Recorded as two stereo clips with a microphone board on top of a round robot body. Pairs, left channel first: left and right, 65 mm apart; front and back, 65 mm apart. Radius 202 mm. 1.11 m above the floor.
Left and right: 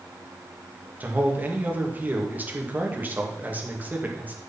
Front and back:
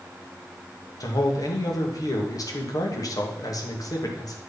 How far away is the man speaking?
About 2 m.